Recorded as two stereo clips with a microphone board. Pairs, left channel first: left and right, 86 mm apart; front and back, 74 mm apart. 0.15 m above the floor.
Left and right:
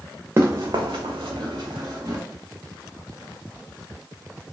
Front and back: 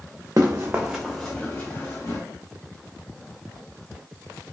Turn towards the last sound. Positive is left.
turn(degrees=-50)